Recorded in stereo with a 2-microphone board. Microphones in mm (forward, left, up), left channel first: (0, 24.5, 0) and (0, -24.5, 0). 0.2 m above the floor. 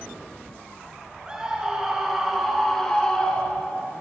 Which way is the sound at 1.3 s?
15° right (ahead or behind).